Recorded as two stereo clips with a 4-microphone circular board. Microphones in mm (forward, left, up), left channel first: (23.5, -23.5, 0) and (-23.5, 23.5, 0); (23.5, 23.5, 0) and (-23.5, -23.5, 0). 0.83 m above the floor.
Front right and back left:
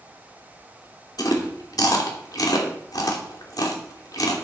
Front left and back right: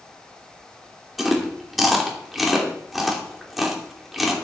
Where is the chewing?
45° right, 2.5 m.